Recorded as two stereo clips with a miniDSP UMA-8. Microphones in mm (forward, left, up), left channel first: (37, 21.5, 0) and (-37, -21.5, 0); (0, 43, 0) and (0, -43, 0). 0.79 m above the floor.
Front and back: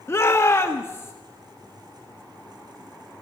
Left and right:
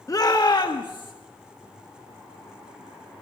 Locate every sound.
0.1 s a shout: 70° left, 1.1 m; by 1.1 s 85° left, 1.9 m